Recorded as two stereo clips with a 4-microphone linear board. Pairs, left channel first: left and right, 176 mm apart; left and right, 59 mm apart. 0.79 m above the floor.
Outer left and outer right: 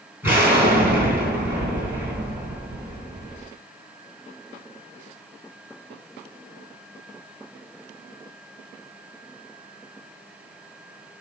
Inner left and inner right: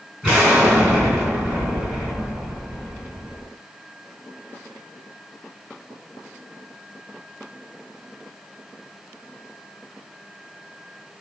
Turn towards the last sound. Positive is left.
turn(degrees=-10)  # may be behind; listen again after turning